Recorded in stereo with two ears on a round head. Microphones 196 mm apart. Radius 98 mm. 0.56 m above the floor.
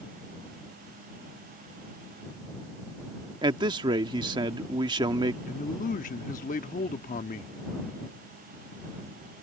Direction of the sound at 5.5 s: 35° left (ahead or behind).